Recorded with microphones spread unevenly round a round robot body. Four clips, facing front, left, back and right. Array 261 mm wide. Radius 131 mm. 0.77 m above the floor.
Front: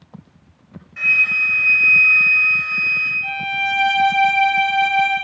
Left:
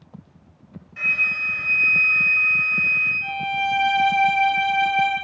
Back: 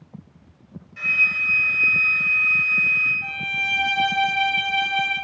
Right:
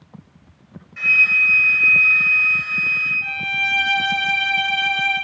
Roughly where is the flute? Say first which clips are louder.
Right 6 dB, front 4 dB; ahead left.